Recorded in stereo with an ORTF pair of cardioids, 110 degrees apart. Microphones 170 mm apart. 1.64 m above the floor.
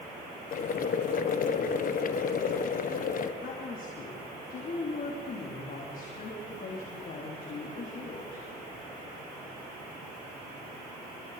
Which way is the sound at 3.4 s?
50° left.